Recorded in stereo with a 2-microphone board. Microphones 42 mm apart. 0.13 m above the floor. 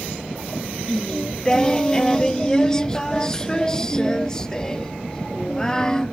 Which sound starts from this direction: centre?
Singing, at 0.9 s.